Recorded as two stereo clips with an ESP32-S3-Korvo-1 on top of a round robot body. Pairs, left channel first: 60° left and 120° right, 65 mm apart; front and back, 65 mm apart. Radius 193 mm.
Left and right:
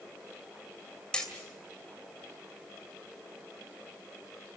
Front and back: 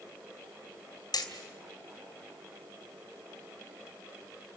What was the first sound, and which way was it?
Hammering, 20° right.